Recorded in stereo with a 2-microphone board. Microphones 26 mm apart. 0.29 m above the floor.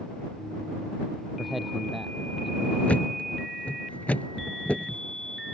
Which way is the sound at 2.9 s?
75° left (ahead or behind).